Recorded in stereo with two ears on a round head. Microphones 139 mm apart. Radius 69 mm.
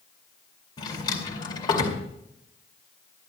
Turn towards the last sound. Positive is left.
turn(degrees=30)  # may be behind; listen again after turning